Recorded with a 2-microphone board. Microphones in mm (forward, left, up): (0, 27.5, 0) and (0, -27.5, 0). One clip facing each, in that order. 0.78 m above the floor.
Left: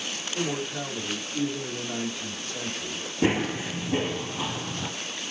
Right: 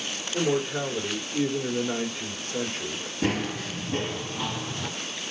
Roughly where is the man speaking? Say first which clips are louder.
Right 5 dB; right.